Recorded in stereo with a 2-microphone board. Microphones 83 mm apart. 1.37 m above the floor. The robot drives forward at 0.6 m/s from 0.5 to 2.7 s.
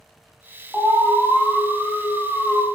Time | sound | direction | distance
0.7 | an alarm | 5° right (ahead or behind) | 0.8 m